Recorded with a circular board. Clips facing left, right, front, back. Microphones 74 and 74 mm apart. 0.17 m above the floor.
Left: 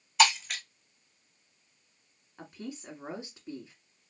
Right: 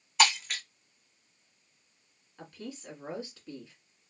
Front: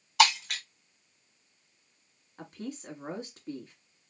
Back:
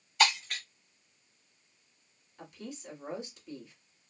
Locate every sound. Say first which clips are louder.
0.2 s breaking glass: left 2 dB, front 4 dB; straight ahead, 2 m
2.4 s a woman speaking: left 1 dB, front 4 dB; 25° left, 1.8 m